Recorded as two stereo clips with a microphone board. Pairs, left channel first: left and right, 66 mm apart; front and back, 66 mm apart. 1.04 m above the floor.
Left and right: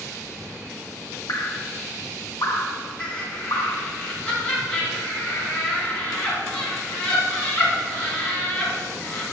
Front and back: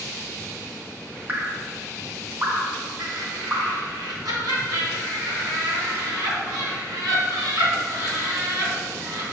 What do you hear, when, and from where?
1.3 s dripping: 120° left, 0.9 m
3.0 s laughter: 165° left, 2.5 m